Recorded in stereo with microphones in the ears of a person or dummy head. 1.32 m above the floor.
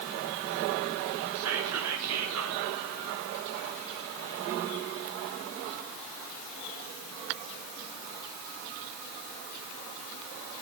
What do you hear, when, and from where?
1.4 s whispering: 85° right, 0.7 m